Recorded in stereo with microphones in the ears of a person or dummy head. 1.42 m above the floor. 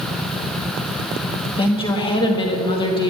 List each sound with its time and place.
1.6 s a woman speaking: 25° left (ahead or behind), 1.0 m